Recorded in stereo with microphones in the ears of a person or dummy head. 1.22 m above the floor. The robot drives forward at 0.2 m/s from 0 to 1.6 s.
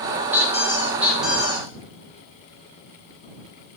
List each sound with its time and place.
0.3 s a squeak: 15° right (ahead or behind), 0.8 m; by 1.7 s 10° right (ahead or behind), 1.1 m